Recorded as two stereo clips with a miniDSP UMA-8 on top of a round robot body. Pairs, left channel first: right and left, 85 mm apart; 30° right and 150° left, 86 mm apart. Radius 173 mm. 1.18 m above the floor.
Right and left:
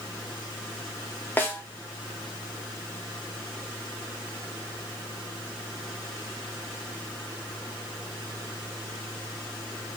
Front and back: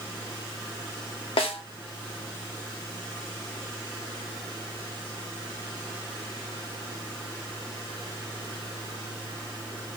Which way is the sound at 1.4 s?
25° right.